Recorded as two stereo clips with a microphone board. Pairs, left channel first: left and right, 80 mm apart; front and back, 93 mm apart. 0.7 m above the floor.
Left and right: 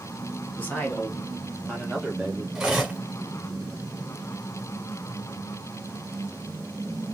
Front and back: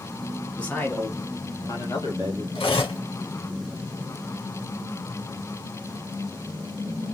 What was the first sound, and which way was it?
A man speaking, 65° left.